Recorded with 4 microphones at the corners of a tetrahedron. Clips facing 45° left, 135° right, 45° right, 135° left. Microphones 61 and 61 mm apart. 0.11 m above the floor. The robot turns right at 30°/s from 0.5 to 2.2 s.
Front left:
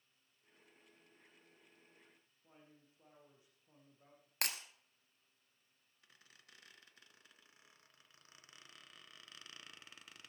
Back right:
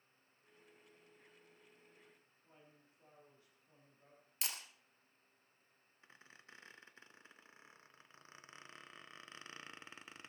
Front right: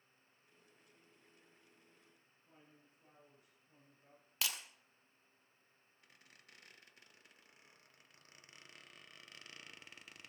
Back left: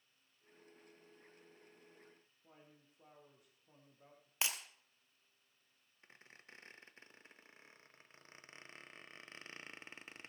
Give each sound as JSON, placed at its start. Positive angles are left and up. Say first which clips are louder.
{"t": 2.4, "sound": "a man speaking", "louder": "front left 1 dB, back left 2 dB", "azimuth_deg": 115, "distance_m": 6.0}
{"t": 4.4, "sound": "breaking glass", "louder": "front left 5 dB, back left 1 dB", "azimuth_deg": 70, "distance_m": 1.4}
{"t": 6.0, "sound": "a squeak", "louder": "back right 5 dB, back left 5 dB", "azimuth_deg": 175, "distance_m": 1.0}